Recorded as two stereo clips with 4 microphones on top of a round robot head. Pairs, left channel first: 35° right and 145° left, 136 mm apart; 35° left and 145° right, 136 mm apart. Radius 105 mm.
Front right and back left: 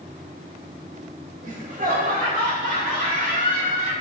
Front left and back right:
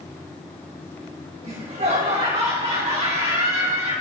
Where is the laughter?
170° left, 3.5 m.